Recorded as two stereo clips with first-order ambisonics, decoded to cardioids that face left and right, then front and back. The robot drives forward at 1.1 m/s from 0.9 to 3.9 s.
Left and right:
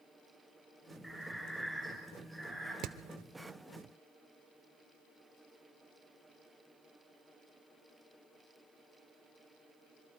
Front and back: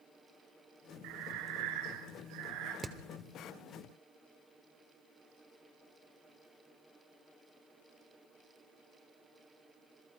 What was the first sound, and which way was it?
Breathing, straight behind.